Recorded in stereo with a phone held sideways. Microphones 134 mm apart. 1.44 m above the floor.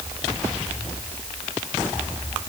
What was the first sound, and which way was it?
Only background noise.